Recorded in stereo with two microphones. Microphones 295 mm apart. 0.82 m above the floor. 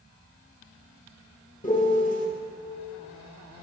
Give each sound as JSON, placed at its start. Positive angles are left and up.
{"t": 1.6, "sound": "a piano", "side_deg": 25, "distance_m": 0.9}